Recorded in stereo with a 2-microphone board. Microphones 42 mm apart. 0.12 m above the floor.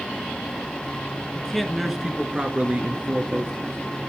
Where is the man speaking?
15° left (ahead or behind), 1.5 m; by 3.8 s 50° right (ahead or behind), 2.5 m.